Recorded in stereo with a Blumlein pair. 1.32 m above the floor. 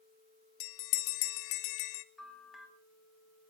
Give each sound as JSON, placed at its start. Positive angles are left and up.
{"t": 0.6, "sound": "a bell", "azimuth_deg": 45, "distance_m": 0.8}
{"t": 2.2, "sound": "a bell", "azimuth_deg": 5, "distance_m": 2.5}